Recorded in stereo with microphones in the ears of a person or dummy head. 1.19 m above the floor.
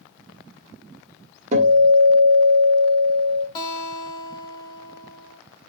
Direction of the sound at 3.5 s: 25° left (ahead or behind).